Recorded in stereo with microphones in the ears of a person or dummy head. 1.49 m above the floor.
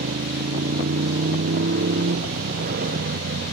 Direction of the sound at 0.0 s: 50° right (ahead or behind).